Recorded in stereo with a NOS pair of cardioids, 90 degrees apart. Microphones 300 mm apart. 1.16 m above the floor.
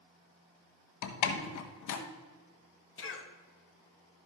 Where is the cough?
40° left, 1.9 m.